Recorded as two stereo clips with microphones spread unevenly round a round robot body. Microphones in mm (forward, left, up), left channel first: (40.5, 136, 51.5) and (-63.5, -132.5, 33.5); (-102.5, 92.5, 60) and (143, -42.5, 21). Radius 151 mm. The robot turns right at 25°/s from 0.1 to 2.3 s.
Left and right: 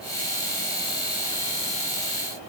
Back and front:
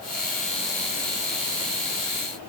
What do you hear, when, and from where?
Only background noise.